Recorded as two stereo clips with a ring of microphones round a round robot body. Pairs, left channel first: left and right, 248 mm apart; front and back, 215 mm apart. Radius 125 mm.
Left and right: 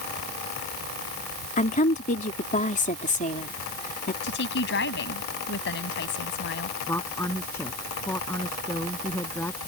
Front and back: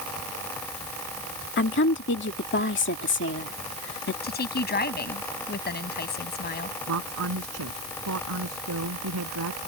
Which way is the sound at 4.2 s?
40° left.